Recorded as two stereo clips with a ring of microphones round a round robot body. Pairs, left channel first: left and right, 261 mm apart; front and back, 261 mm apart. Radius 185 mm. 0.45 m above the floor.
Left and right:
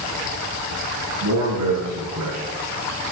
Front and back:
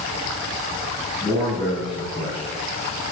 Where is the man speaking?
85° right, 5 m; by 2.4 s 70° right, 4.5 m.